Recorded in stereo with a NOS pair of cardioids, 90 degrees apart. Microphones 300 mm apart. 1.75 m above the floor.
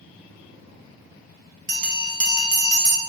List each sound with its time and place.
1.7 s a bell: 25° right, 0.7 m